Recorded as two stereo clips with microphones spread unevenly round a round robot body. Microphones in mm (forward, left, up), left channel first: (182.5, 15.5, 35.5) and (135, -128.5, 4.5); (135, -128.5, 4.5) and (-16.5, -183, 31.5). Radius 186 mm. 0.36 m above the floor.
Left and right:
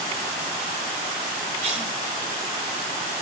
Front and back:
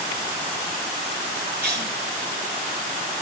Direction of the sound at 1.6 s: 140° right.